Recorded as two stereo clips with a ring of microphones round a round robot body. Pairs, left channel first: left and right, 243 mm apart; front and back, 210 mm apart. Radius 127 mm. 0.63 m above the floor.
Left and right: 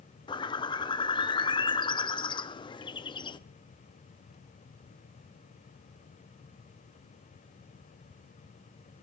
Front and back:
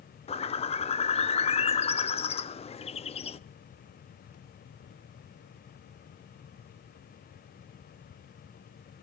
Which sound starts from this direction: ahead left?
A bird, at 0.3 s.